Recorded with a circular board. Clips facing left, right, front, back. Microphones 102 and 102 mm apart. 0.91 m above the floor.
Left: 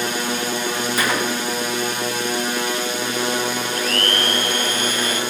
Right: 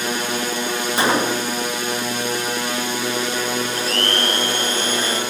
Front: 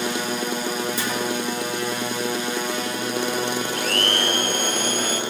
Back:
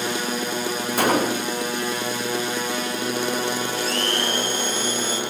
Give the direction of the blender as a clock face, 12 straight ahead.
1 o'clock.